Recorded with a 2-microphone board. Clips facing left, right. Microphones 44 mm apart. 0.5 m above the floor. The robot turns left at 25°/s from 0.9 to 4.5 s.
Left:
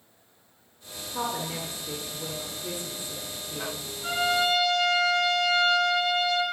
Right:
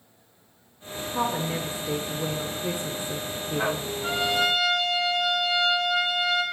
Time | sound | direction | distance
1.1 | a woman speaking | 15° right | 1.1 m
4.0 | a trumpet | 10° right (ahead or behind) | 2.5 m